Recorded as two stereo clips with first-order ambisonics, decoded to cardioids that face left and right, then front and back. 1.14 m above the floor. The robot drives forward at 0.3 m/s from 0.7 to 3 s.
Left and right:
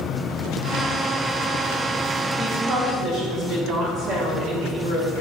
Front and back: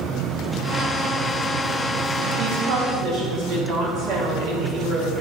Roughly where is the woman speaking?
Behind.